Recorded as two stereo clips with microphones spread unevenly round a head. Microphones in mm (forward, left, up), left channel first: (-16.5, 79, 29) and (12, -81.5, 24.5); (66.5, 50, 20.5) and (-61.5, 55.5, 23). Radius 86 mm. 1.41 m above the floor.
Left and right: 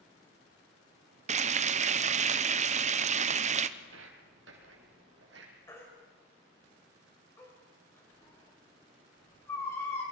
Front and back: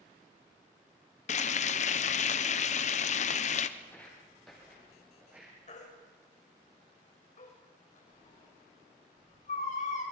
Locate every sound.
1.3 s frying: 35° right, 0.8 m
3.8 s footsteps: 80° right, 3 m; by 5.5 s 105° right, 4.5 m
5.7 s a baby crying: 25° left, 5.5 m